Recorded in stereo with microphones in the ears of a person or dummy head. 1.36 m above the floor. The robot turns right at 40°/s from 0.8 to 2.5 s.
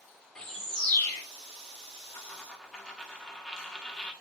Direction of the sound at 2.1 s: 15° left (ahead or behind).